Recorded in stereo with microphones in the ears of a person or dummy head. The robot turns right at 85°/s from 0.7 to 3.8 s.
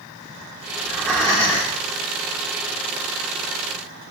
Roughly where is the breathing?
Centre.